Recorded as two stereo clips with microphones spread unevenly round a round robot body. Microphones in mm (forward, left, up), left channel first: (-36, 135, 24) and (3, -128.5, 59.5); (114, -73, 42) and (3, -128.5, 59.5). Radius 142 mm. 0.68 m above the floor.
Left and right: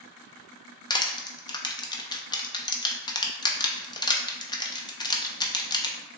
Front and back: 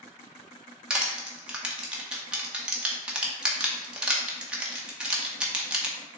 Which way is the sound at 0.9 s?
115° left.